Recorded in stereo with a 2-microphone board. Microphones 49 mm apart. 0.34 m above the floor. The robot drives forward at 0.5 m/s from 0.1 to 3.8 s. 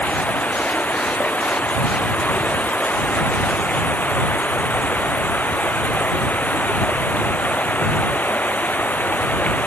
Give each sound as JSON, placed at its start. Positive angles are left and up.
{"t": 0.0, "sound": "running water", "side_deg": 30}